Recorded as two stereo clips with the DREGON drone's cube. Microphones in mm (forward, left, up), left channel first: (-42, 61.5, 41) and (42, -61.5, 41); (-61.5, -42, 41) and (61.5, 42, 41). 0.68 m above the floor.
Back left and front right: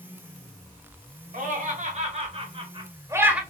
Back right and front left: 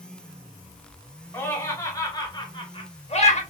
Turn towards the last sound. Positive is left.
turn(degrees=-135)